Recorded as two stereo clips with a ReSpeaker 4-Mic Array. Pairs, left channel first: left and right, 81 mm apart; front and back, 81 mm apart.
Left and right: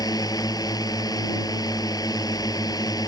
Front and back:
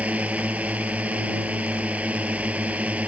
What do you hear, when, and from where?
0.0 s a drone: 110° left